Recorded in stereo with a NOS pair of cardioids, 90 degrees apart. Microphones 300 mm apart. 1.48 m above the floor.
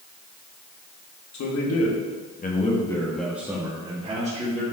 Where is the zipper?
No zipper in this recording.